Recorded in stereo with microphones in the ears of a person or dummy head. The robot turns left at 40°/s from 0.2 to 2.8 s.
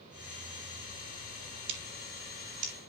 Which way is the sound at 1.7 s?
70° right (ahead or behind).